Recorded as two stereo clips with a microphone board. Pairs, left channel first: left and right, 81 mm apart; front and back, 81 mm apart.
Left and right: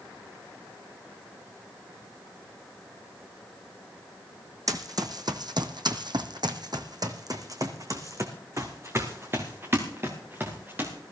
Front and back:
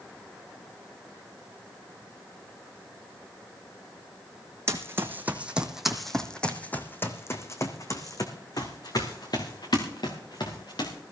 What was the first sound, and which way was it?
Running footsteps, 125° right.